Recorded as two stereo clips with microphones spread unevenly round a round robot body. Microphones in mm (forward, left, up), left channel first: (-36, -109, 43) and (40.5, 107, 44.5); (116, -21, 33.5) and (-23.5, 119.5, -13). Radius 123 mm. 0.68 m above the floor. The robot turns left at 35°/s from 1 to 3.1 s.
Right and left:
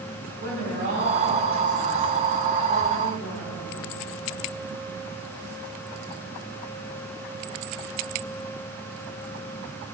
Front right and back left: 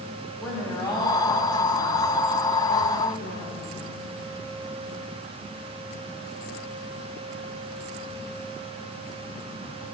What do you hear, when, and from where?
0.4 s a woman speaking: 25° left, 5.5 m; by 4.0 s 45° right, 5.5 m